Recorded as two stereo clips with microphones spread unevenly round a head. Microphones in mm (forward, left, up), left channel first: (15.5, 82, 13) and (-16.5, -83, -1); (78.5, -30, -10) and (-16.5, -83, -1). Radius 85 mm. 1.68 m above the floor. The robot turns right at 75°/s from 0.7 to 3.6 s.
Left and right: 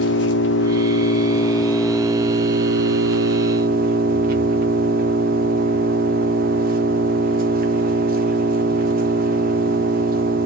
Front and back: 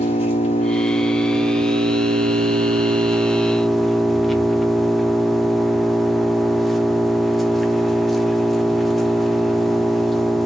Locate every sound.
0.0 s an engine running: 80° left, 1.1 m; by 10.5 s 60° right, 1.1 m